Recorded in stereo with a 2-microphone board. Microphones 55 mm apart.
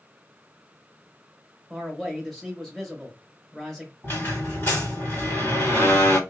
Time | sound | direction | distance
1.7 | a man speaking | centre (ahead or behind) | 1.3 m
4.0 | a squeak | 45° left (ahead or behind) | 1.7 m